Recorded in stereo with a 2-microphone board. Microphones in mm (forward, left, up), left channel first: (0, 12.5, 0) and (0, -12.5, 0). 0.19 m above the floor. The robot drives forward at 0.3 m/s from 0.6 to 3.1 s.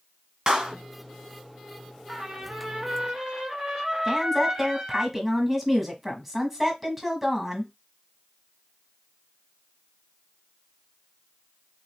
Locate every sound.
0.5 s a clap: 30° right (ahead or behind), 1.0 m
2.1 s a trumpet: 25° right (ahead or behind), 1.2 m; by 5.0 s 20° right (ahead or behind), 1.5 m
4.0 s a woman speaking: 5° right (ahead or behind), 1.1 m